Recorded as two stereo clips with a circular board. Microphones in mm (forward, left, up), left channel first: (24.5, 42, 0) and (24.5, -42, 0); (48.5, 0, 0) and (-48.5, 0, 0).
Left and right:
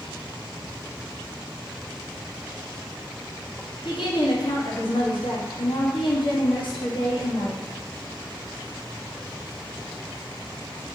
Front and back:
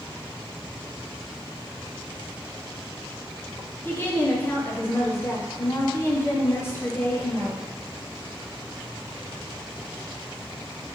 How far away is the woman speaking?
About 0.8 m.